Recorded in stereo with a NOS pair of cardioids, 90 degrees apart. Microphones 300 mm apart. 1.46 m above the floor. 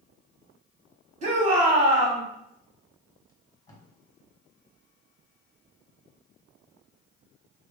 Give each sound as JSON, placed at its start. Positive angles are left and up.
{"t": 1.2, "sound": "a shout", "azimuth_deg": -25, "distance_m": 2.5}
{"t": 3.3, "sound": "tape being pulled", "azimuth_deg": 10, "distance_m": 1.6}